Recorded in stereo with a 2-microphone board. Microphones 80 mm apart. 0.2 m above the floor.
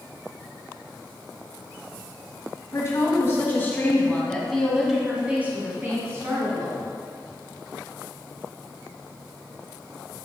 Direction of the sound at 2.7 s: 40° left (ahead or behind).